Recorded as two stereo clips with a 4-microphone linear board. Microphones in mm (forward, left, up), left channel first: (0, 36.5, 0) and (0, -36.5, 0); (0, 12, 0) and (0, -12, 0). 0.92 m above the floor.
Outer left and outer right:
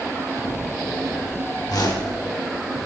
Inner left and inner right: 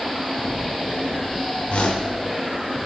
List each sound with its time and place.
1.7 s a whoosh: 60° left (ahead or behind), 1.9 m